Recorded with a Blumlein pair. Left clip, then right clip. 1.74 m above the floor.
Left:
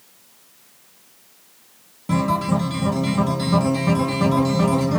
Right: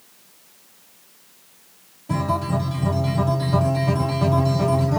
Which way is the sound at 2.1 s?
50° left.